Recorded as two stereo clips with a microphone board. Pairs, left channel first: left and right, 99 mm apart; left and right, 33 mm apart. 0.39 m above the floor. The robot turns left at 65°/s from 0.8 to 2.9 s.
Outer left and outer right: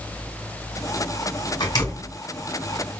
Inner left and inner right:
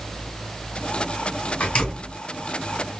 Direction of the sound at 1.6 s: 50° left (ahead or behind).